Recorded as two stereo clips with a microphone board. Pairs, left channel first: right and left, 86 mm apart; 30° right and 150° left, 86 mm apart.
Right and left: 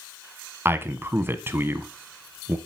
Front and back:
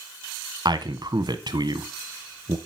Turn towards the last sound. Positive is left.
turn(degrees=150)